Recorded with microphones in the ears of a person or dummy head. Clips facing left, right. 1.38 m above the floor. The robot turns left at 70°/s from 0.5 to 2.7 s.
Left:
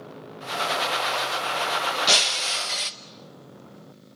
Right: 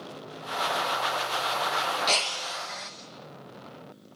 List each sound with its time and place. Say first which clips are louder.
2.1 s breaking glass: left 3 dB; 160° left, 0.7 m; by 2.9 s 115° left, 0.7 m